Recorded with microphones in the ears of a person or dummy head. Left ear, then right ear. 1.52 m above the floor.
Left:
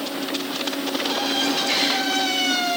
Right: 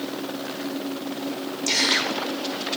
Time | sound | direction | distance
1.7 | a gasp | 60° right (ahead or behind) | 4.5 m